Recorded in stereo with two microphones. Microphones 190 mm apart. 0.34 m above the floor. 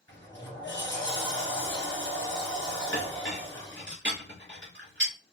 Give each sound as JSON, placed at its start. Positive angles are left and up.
{"t": 0.1, "sound": "a sliding door", "side_deg": -75, "distance_m": 3.0}
{"t": 2.9, "sound": "a clink", "side_deg": -80, "distance_m": 3.0}